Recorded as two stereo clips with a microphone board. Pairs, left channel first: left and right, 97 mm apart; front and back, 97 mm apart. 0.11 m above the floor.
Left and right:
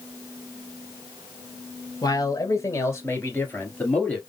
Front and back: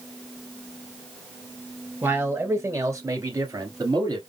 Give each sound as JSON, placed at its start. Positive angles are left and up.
{"t": 2.0, "sound": "a man speaking", "azimuth_deg": 120, "distance_m": 2.0}